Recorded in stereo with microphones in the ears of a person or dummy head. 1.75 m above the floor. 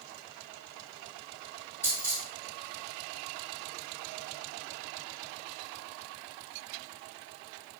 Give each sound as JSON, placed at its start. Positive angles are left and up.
{"t": 1.8, "sound": "a dropped coin", "side_deg": 15, "distance_m": 2.0}